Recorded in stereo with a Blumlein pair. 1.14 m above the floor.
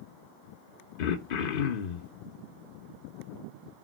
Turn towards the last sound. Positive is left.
turn(degrees=50)